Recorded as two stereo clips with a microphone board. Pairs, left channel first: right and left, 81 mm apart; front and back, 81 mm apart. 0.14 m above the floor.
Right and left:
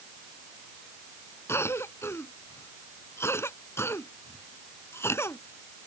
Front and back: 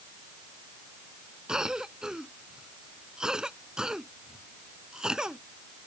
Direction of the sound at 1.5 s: 105° right.